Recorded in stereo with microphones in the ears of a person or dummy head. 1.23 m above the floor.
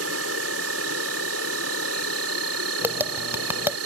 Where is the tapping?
10° right (ahead or behind).